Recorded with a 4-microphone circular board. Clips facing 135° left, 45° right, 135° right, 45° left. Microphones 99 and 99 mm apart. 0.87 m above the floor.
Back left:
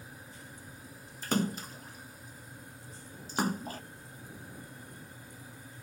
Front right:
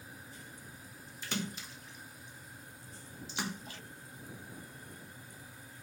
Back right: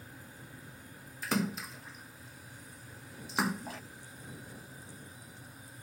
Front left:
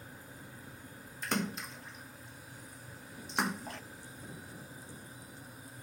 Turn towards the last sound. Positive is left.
turn(degrees=140)